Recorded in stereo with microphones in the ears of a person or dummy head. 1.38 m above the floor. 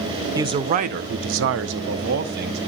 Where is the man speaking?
20° right (ahead or behind), 0.7 m; by 2.6 s 65° right (ahead or behind), 1.2 m.